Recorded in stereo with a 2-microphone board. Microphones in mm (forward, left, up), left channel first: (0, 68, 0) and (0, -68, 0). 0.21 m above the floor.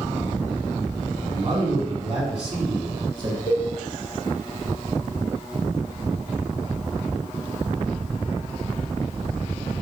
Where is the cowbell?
25° left (ahead or behind), 1.4 m.